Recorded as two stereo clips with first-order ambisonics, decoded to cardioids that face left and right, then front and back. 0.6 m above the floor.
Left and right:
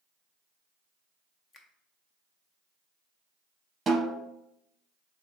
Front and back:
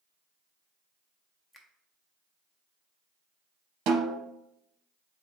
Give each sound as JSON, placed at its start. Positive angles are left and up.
{"t": 1.5, "sound": "a finger snap", "azimuth_deg": 70, "distance_m": 0.5}
{"t": 3.9, "sound": "a snare drum", "azimuth_deg": -165, "distance_m": 0.7}